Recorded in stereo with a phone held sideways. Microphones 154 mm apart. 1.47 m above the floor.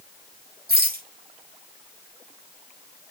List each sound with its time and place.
0.7 s a rattle: 80° right, 4 m